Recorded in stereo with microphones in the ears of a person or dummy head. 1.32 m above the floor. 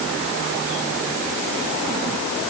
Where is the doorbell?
I don't hear a doorbell.